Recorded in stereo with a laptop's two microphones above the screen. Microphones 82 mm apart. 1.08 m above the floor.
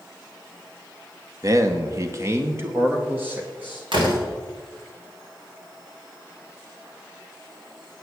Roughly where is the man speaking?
Right.